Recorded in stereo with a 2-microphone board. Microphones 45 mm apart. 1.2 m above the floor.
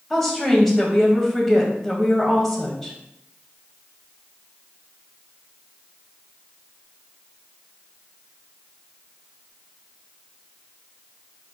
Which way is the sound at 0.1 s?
Centre (ahead or behind).